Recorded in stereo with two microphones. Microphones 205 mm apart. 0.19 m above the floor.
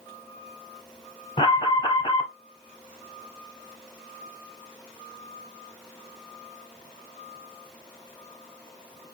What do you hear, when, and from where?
1.4 s an alarm: 25° left (ahead or behind), 0.8 m